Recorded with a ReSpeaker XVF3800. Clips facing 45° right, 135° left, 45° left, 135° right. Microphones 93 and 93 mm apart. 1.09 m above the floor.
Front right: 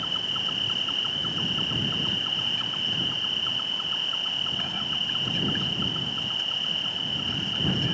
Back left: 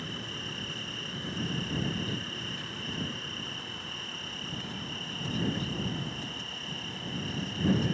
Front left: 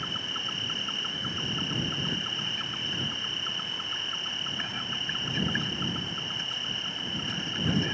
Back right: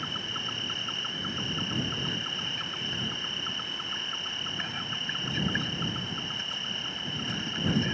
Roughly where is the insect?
Ahead right.